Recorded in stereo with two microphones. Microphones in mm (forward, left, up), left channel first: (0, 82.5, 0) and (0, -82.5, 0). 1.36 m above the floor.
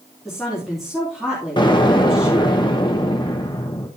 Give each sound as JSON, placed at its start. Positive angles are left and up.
{"t": 0.2, "sound": "a woman speaking", "side_deg": 0, "distance_m": 3.0}
{"t": 1.6, "sound": "an explosion", "side_deg": 30, "distance_m": 1.3}